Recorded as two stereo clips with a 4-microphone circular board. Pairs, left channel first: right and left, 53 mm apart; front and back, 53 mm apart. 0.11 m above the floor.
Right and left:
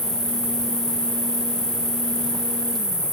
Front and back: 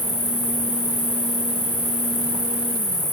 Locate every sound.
0.0 s an insect: 75° left, 3.5 m